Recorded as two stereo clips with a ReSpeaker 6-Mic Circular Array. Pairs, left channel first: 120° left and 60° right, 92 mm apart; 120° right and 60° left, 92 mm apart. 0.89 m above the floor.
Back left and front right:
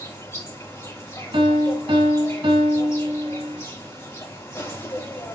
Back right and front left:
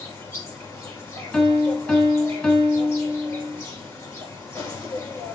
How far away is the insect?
About 4 m.